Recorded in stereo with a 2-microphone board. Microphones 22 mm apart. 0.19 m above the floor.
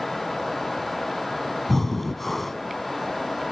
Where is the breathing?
10° left (ahead or behind), 0.6 m.